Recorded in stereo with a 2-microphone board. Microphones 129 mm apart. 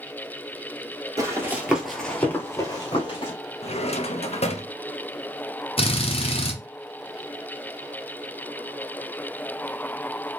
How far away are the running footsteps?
About 1.1 m.